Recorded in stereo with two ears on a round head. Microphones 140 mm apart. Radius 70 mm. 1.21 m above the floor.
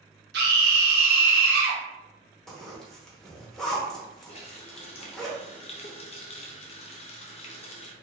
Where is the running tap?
40° left (ahead or behind), 0.7 m.